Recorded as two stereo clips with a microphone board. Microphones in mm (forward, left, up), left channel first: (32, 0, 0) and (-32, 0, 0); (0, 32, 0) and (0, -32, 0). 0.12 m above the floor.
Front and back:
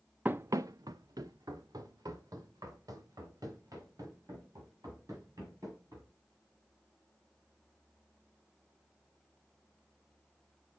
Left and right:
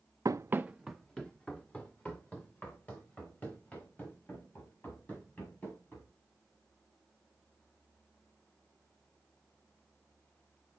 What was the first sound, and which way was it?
Running footsteps, 115° right.